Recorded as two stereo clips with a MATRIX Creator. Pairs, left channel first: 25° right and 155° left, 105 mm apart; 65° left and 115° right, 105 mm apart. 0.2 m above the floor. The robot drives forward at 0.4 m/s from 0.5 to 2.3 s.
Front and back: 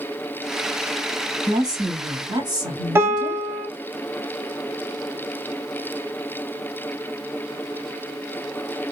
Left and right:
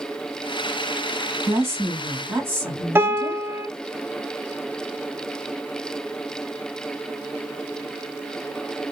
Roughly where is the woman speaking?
Behind.